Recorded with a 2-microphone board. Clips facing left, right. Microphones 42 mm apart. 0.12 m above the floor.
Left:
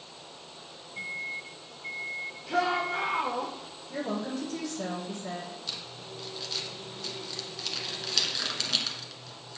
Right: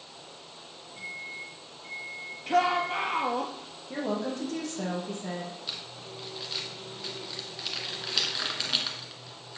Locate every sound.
1.0 s a microwave: 30° left (ahead or behind), 1.3 m
2.5 s a shout: 65° right (ahead or behind), 3 m
3.9 s a woman speaking: 55° right (ahead or behind), 4 m
5.7 s crumpling: 15° right (ahead or behind), 1.5 m